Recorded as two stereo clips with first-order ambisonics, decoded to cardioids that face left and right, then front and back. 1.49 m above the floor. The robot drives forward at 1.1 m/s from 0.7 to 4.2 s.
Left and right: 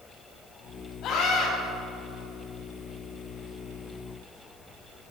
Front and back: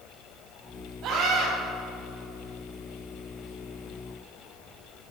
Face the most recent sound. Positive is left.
turn(degrees=150)